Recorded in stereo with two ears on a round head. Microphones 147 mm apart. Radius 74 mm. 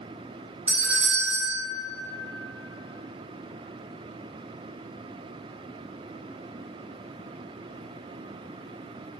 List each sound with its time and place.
0.7 s a doorbell: 10° right (ahead or behind), 1.6 m